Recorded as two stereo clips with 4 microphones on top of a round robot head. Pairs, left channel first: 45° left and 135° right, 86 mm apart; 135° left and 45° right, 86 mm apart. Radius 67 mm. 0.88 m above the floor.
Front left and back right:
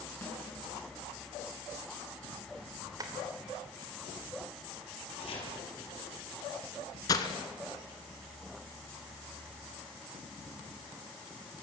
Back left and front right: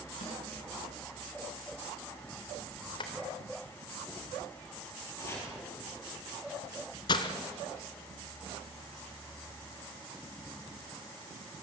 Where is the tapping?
170° left, 3 m.